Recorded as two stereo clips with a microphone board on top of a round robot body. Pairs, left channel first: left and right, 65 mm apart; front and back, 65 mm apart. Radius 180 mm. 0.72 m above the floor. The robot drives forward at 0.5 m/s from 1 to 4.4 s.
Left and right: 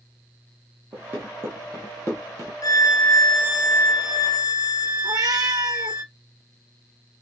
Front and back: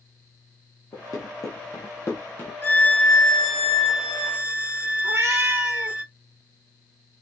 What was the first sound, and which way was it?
Running footsteps, 35° right.